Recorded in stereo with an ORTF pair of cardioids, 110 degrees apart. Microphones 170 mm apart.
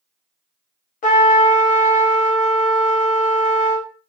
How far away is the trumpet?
About 0.9 m.